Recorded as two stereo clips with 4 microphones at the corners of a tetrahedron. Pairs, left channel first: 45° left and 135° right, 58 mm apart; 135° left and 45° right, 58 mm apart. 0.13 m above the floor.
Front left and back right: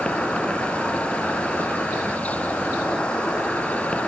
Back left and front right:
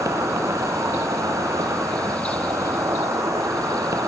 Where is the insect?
25° right, 2.5 m.